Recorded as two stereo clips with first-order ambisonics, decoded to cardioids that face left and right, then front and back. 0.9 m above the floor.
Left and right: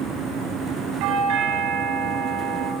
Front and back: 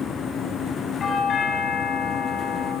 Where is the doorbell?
70° right, 8.5 m.